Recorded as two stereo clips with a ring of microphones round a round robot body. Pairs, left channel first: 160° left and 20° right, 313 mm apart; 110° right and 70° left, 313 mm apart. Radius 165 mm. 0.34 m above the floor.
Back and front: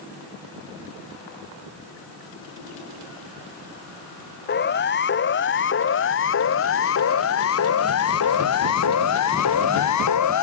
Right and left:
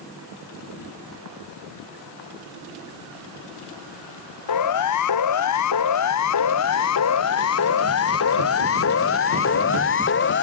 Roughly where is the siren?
Behind right.